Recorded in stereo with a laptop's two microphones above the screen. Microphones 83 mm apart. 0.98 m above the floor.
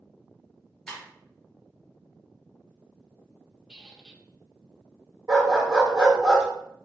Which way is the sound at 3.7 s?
5° right (ahead or behind).